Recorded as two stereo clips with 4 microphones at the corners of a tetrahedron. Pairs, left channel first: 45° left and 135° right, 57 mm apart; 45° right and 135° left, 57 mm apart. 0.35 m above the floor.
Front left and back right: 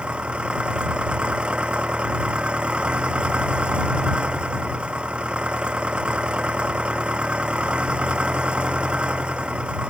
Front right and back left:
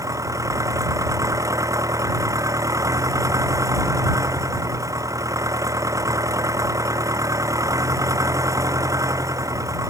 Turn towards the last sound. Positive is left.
turn(degrees=155)